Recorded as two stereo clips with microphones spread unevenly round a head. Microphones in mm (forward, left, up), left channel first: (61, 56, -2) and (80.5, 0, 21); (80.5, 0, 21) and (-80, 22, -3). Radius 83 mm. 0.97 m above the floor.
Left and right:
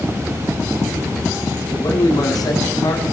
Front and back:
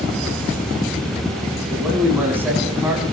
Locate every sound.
1.7 s a man speaking: 95° left, 7.5 m